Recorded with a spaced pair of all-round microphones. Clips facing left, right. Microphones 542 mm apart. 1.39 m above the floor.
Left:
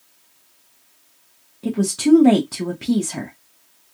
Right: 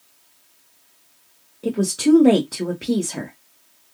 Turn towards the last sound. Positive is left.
turn(degrees=25)  # may be behind; listen again after turning